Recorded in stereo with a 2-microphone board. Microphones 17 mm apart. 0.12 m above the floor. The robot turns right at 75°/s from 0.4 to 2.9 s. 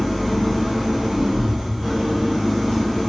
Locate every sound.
0.0 s an engine running: straight behind, 1.7 m; by 3.1 s 10° left, 1.7 m